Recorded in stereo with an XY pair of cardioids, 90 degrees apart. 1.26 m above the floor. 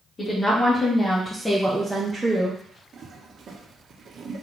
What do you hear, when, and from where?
0.2 s a woman speaking: 45° left, 2.0 m; by 2.6 s 30° right, 1.4 m
2.9 s a toilet flushing: 55° right, 1.3 m